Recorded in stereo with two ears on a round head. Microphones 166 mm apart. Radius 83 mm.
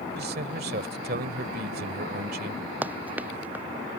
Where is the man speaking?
55° right (ahead or behind).